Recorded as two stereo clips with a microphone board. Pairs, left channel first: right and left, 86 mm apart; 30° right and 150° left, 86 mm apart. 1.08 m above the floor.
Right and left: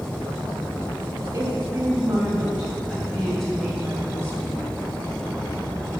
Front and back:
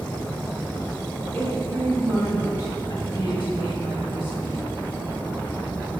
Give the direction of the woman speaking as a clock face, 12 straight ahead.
11 o'clock.